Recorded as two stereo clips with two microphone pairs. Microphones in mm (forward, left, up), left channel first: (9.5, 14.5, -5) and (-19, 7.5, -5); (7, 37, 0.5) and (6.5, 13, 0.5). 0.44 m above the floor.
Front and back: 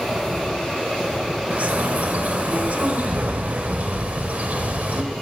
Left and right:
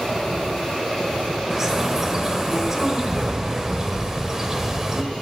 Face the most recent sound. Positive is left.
turn(degrees=-165)